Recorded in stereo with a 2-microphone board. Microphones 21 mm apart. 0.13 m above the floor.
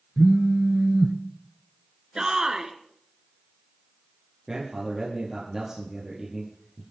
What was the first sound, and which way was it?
A phone buzzing, 5° right (ahead or behind).